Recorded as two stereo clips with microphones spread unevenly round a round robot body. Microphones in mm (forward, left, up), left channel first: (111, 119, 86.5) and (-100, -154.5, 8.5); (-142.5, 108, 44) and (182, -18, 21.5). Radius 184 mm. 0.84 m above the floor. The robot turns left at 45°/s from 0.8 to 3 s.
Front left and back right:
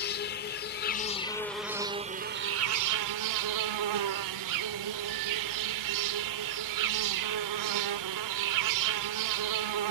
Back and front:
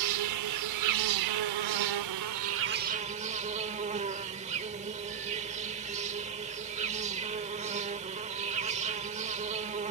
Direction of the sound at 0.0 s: 5° left.